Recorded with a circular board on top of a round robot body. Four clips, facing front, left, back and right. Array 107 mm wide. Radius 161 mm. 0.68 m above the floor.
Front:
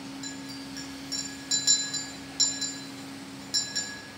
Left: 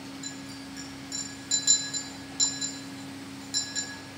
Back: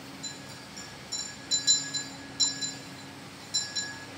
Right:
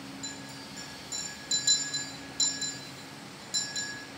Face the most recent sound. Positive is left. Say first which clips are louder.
# left 3 dB, front 6 dB
turn(degrees=15)